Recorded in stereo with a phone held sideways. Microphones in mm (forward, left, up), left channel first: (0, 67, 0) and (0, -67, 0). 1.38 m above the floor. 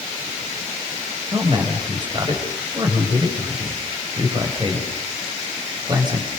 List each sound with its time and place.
1.3 s a man speaking: 35° right (ahead or behind), 6 m